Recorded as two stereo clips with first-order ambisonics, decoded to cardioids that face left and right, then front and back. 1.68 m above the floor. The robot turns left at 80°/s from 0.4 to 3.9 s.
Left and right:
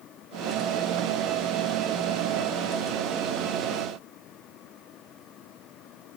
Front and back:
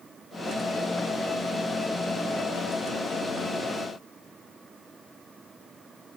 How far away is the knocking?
No knocking in this recording.